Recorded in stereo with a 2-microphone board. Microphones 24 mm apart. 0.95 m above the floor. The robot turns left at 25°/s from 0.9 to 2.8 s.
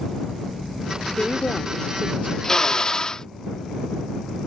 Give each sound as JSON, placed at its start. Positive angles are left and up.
{"t": 1.1, "sound": "a woman speaking", "azimuth_deg": 130}
{"t": 2.4, "sound": "a drill", "side_deg": 20}